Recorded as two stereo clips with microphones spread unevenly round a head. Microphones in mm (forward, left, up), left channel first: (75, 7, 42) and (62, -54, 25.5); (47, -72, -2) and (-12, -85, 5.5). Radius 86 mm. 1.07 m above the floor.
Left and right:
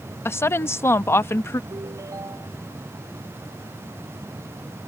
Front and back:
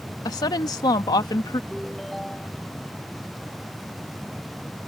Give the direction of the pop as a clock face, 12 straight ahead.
I don't hear a pop.